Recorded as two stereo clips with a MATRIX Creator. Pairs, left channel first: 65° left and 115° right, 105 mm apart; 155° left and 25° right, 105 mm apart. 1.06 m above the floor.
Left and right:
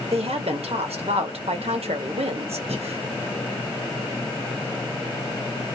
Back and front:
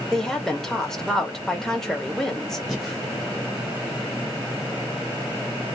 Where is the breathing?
115° right, 1.2 m.